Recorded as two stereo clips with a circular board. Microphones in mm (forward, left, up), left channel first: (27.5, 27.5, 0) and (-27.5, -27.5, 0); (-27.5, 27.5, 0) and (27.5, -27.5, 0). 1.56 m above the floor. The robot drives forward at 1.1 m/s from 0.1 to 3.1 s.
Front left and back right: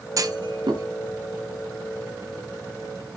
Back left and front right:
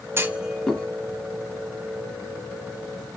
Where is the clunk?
100° right, 0.5 m; by 0.8 s 150° right, 1.0 m.